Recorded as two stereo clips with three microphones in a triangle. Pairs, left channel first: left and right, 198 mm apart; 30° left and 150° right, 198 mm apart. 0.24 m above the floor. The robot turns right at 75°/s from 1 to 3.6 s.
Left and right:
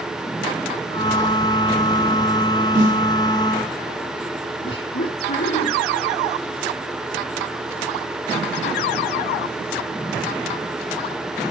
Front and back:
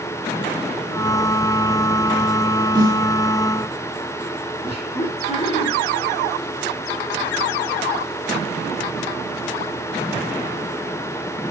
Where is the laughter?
90° left, 4.5 m.